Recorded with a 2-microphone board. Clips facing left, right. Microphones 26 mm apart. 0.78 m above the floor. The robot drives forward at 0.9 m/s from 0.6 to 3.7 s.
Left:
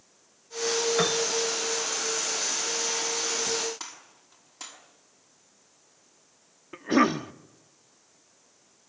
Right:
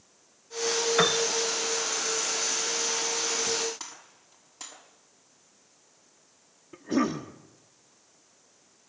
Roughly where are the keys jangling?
No keys jangling in this recording.